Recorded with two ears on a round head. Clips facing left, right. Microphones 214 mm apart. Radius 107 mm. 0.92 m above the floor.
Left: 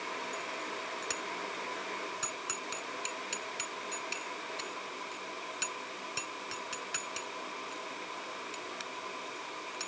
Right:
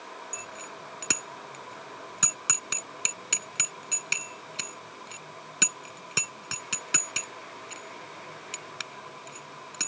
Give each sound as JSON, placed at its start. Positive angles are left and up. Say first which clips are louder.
{"t": 0.3, "sound": "a bicycle bell", "louder": "left 3 dB", "side_deg": -75}